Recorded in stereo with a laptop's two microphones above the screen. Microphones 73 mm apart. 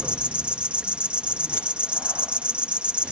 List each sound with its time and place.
0.0 s an insect: 15° right (ahead or behind)